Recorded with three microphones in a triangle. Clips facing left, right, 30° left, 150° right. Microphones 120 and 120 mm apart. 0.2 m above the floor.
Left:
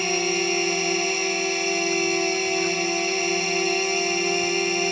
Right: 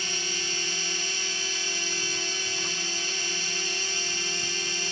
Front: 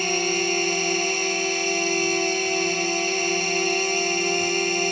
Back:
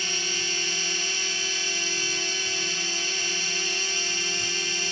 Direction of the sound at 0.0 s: 65° left.